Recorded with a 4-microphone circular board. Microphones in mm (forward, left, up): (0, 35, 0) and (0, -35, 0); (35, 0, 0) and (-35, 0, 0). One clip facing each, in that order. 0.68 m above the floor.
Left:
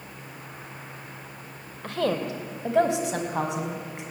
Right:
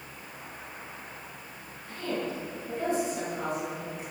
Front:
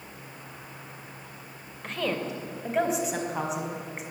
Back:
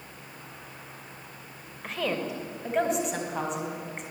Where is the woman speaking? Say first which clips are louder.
Left 7 dB, even; 95° left, 2.5 m; by 4.0 s 85° left, 5 m.